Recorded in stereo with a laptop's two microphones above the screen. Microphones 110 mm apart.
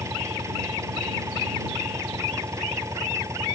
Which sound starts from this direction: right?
An engine running, at 0.0 s.